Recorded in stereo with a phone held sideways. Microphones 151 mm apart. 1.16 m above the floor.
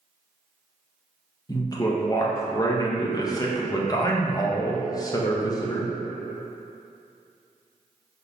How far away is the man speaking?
About 0.5 m.